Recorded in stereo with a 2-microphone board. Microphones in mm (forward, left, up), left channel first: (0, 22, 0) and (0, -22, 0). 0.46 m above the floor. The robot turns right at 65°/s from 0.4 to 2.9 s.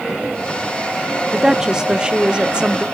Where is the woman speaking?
10° right (ahead or behind), 0.7 m; by 2.9 s 20° right (ahead or behind), 0.7 m.